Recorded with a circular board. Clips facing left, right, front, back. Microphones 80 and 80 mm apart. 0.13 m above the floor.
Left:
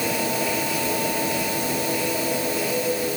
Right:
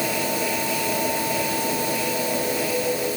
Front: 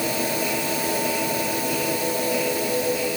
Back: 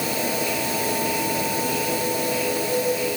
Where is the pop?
I don't hear a pop.